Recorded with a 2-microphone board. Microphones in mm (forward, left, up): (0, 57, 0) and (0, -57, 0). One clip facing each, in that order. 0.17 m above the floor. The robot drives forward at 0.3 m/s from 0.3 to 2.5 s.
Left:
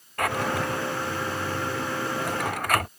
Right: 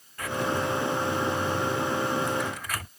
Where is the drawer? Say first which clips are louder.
Left 2 dB; 65° left (ahead or behind).